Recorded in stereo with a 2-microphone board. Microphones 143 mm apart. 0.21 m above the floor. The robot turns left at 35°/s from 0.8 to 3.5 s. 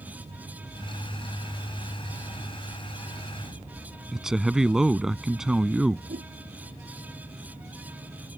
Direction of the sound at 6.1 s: 80° right.